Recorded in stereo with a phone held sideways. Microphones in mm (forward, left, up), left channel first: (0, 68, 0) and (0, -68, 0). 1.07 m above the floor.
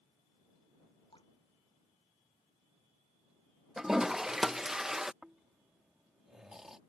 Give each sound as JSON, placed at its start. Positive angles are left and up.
{"t": 1.1, "sound": "dripping", "side_deg": 35}
{"t": 3.8, "sound": "a toilet flushing", "side_deg": -5}
{"t": 5.2, "sound": "snoring", "side_deg": -5}